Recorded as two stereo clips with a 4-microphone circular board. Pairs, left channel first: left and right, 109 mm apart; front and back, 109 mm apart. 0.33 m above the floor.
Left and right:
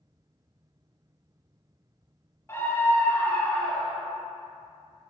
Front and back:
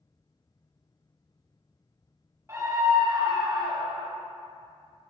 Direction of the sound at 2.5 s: 140° left.